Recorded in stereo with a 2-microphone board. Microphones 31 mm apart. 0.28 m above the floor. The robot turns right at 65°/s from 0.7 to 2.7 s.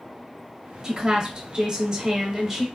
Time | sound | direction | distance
0.8 | a woman speaking | 20° right (ahead or behind) | 1.0 m